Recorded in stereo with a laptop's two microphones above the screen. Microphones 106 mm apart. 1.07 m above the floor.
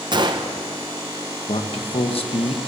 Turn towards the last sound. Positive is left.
turn(degrees=65)  # may be behind; listen again after turning